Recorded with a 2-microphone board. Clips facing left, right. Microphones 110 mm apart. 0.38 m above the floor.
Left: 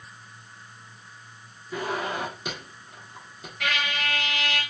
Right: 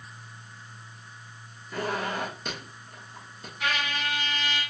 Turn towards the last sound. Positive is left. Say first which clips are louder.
# left 1 dB
turn(degrees=70)  # may be behind; listen again after turning